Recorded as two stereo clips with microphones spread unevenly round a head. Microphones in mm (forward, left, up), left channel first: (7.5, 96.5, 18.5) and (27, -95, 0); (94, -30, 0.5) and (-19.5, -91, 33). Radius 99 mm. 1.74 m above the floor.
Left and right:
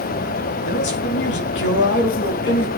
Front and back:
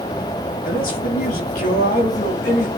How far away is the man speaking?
About 4.5 m.